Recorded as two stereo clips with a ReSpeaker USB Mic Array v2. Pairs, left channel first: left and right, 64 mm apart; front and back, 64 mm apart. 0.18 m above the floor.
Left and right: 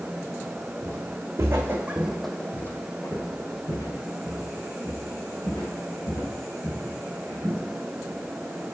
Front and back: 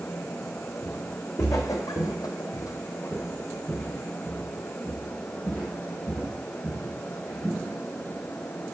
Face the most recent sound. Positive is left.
turn(degrees=90)